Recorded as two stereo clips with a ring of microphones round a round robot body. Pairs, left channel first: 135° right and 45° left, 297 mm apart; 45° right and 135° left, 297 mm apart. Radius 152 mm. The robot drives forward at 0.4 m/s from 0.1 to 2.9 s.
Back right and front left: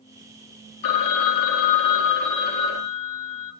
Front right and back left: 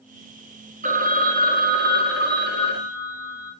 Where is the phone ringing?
155° right, 0.9 m; by 3.5 s 170° right, 1.7 m.